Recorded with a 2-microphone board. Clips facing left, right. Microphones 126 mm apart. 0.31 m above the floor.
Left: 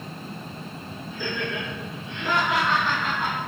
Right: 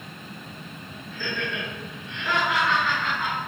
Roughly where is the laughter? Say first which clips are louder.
Left 1 dB; centre.